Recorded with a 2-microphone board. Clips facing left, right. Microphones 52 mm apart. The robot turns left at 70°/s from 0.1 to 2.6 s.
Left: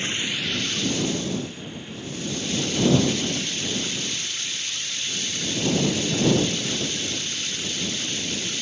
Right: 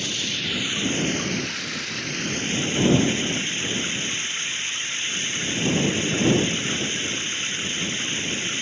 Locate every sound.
0.0 s running water: 25° left; by 8.6 s 150° right